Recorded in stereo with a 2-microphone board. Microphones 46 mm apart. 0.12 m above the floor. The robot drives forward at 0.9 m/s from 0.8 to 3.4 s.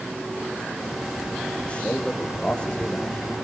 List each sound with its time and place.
1.6 s a man speaking: 25° left (ahead or behind), 5 m; by 3.4 s 20° left (ahead or behind), 6.5 m